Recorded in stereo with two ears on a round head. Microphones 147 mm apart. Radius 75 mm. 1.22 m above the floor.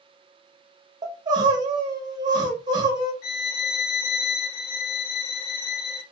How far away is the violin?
About 1.2 m.